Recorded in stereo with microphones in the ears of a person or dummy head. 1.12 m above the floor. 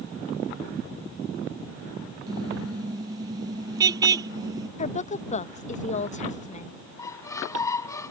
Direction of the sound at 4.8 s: 40° left (ahead or behind).